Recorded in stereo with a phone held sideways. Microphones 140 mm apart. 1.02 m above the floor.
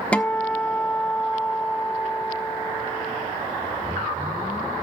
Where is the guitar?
10° left (ahead or behind), 0.8 m.